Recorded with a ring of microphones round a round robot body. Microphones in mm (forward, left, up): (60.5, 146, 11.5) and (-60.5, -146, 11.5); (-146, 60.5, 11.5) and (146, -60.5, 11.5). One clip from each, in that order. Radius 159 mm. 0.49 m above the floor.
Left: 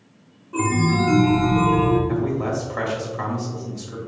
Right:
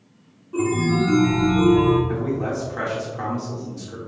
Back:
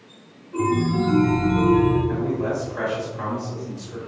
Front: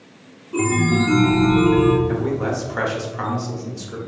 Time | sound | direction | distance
0.5 | a chime | straight ahead | 0.8 m
2.1 | a man speaking | 15° right | 1.2 m